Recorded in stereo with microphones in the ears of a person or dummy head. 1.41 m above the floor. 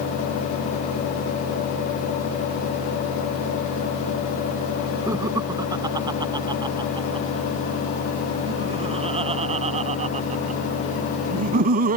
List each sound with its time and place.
5.1 s laughter: 15° right (ahead or behind); by 12.0 s 45° right (ahead or behind)